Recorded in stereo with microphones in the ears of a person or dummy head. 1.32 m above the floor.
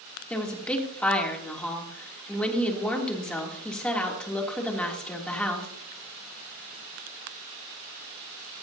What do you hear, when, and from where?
0.3 s a woman speaking: 5° left (ahead or behind), 3 m